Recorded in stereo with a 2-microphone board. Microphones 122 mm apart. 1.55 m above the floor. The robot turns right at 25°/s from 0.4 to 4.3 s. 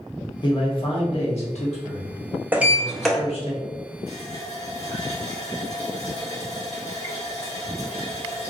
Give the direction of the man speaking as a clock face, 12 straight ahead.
11 o'clock.